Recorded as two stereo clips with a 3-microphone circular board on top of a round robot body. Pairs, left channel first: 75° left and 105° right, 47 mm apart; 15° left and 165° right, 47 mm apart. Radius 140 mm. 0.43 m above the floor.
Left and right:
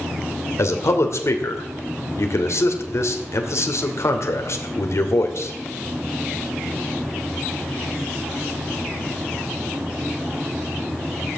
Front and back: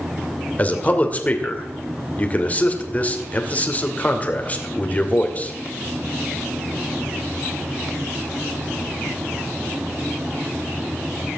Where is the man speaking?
70° left, 2.5 m.